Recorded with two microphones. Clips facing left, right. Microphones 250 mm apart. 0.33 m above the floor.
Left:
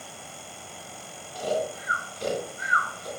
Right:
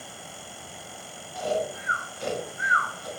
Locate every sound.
1.4 s snoring: 40° left (ahead or behind), 0.6 m